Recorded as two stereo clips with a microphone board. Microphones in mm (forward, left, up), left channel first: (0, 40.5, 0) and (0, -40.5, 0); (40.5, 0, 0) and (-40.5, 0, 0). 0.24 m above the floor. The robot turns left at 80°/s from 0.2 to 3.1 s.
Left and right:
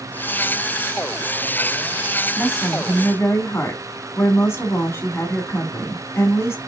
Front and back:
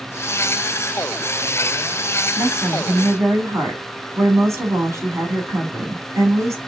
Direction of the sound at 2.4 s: 160° right.